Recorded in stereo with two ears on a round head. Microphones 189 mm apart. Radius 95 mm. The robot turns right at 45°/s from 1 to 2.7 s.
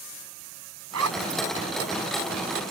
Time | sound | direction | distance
0.9 | a zipper | 85° right | ?